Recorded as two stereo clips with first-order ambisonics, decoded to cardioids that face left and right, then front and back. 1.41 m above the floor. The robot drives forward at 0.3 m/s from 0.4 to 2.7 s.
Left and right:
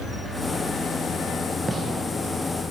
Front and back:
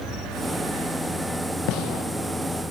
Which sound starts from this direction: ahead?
A gunshot, at 1.7 s.